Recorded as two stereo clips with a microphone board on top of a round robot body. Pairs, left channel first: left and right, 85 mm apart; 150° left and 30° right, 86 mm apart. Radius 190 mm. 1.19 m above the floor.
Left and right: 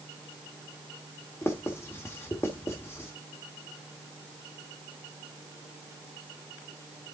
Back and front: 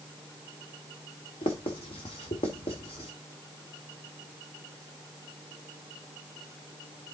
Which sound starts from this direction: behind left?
Writing, at 1.4 s.